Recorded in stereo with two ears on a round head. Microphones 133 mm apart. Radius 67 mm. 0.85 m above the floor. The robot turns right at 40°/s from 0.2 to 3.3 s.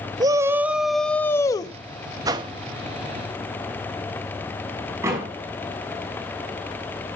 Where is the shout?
30° right, 0.7 m; by 1.8 s 35° left, 0.7 m.